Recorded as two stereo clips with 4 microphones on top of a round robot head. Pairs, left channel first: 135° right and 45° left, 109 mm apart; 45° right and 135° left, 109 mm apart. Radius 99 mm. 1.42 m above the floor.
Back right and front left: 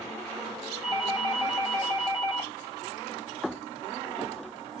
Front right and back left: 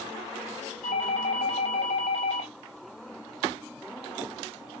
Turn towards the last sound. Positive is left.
turn(degrees=-45)